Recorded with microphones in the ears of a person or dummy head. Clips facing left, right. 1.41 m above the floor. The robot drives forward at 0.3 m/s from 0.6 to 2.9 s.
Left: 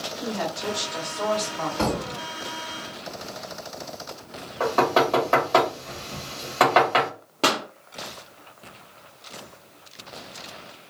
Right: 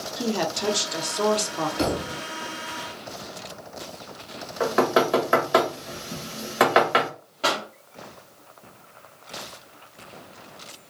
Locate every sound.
0.2 s a woman speaking: 65° right (ahead or behind), 0.9 m; by 1.7 s 80° right, 0.9 m
1.8 s a thud: 25° right (ahead or behind), 1.6 m
4.6 s knocking: 15° right (ahead or behind), 1.1 m
7.4 s a pop: 85° left, 0.7 m